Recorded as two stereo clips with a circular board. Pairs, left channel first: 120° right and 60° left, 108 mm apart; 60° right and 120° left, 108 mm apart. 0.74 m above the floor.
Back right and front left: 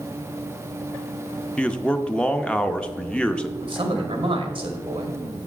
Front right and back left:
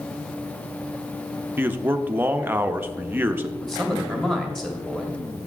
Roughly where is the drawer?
No drawer in this recording.